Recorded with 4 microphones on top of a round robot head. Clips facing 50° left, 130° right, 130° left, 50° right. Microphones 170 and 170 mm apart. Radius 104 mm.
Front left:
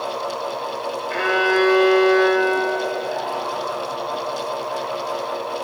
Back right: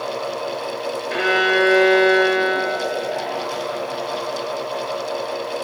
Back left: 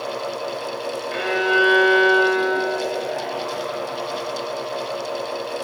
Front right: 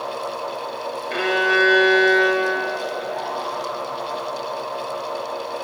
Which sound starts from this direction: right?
A violin, at 1.1 s.